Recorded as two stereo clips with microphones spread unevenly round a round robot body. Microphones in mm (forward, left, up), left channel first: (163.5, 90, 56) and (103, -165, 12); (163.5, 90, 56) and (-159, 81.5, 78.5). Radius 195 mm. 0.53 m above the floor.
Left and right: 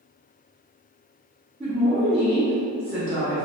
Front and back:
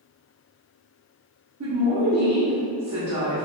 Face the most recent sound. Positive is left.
turn(degrees=-160)